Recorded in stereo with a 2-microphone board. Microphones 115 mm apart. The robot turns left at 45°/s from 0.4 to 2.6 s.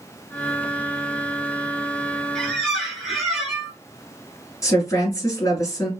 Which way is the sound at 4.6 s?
30° left (ahead or behind).